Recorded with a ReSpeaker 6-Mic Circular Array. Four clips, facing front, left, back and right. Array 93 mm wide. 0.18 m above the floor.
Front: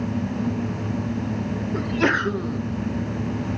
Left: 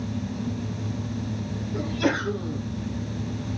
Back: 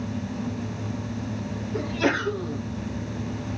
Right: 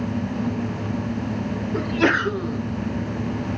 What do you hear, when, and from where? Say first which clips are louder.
1.7 s a sneeze: right 5 dB, front 2 dB; 55° right, 1.9 m